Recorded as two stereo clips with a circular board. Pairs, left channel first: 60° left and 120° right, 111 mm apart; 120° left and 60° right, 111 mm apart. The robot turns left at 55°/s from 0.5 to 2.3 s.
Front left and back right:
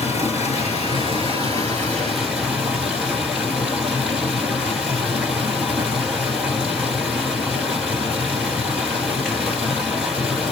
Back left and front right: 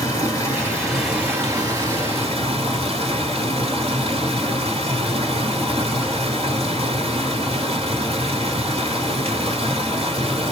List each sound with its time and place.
0.0 s running water: 60° left, 1.5 m; by 10.5 s 40° right, 1.5 m